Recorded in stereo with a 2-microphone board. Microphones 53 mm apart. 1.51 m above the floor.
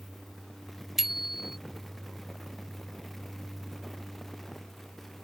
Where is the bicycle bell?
5° right (ahead or behind).